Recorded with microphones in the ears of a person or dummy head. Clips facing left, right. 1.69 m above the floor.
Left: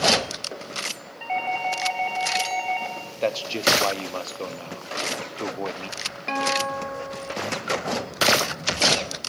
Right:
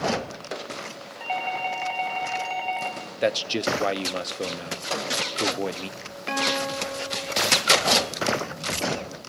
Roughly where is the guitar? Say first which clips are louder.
Left 1 dB; centre.